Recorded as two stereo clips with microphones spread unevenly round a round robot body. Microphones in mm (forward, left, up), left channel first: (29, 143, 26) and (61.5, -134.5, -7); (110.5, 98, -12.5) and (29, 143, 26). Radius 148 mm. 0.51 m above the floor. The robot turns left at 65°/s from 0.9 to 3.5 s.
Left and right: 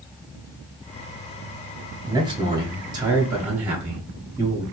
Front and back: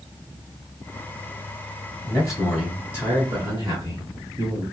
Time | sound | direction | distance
2.1 | a man speaking | 45° right | 0.9 m